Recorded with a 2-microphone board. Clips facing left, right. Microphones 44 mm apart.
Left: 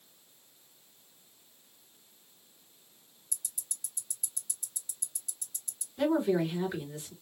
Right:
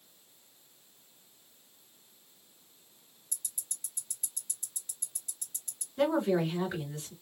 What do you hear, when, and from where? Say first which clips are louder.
3.3 s ticking: even; 45° right (ahead or behind), 1.0 m
6.0 s a woman speaking: even; 50° right (ahead or behind), 2.5 m